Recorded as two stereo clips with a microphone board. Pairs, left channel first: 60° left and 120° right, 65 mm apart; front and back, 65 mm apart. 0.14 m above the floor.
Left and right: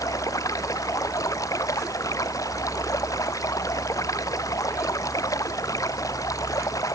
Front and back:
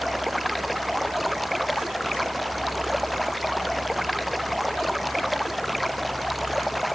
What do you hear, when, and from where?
0.0 s running water: 90° left